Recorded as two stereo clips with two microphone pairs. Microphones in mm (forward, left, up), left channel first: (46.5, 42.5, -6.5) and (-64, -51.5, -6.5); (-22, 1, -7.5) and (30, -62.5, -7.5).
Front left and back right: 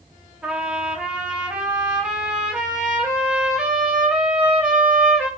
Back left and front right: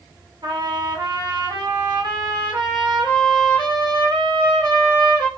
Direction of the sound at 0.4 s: 60° right.